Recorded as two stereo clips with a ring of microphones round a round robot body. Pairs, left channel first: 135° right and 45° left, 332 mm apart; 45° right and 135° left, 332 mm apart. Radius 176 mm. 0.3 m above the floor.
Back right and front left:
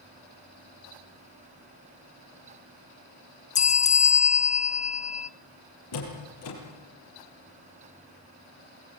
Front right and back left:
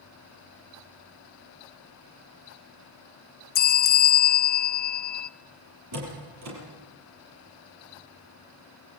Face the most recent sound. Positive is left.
turn(degrees=180)